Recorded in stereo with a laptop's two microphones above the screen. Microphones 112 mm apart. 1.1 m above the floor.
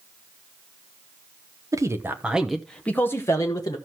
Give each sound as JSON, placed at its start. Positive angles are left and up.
{"t": 1.7, "sound": "a man speaking", "side_deg": -30, "distance_m": 0.9}